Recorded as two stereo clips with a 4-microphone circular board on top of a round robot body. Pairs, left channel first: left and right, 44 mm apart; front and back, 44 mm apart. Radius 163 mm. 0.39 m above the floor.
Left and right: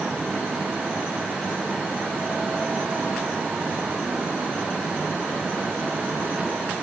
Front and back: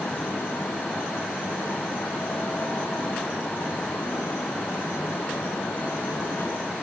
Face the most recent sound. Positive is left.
No sound to turn to.